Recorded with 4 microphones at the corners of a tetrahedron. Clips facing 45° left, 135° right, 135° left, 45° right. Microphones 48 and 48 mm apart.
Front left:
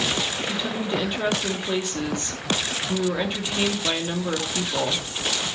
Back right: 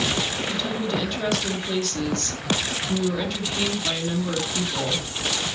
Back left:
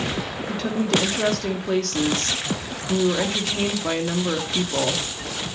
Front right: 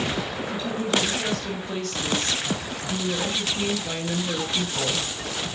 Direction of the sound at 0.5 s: 115° left.